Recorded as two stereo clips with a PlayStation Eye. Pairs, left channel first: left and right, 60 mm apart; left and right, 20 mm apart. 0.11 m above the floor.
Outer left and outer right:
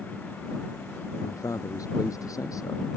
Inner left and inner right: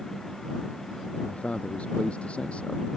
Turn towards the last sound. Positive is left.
turn(degrees=75)  # may be behind; listen again after turning